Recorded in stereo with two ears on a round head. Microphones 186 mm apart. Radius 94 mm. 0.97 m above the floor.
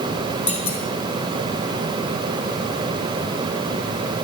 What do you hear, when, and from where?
0.5 s a clunk: 35° left (ahead or behind), 2.5 m